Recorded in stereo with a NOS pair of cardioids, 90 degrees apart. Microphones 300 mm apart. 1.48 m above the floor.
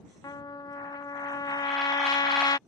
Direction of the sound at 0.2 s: 15° left.